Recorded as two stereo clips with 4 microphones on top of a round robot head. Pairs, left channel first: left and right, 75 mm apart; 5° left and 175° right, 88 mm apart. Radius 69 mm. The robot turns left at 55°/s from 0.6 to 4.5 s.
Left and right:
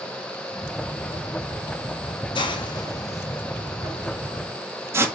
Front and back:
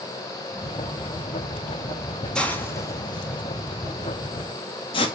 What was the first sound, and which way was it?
A hiss, 85° left.